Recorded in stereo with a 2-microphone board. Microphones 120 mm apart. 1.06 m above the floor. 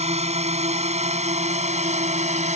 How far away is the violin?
I don't hear a violin.